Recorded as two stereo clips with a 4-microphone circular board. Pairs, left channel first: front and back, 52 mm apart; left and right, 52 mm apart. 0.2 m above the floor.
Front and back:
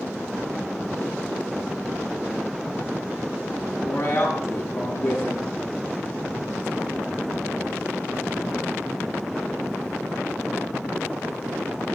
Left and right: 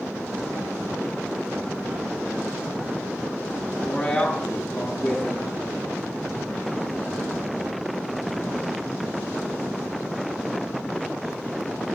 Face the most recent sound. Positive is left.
turn(degrees=20)